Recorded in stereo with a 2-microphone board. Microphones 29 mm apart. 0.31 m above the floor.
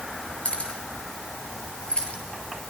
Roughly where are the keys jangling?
Left.